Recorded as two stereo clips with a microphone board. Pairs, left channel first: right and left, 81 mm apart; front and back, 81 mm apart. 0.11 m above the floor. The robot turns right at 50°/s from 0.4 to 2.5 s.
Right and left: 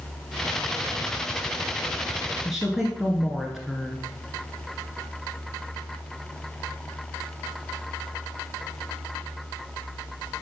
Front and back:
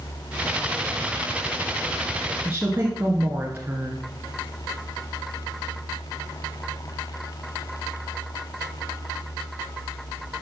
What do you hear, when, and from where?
2.5 s a woman speaking: 170° left, 1.2 m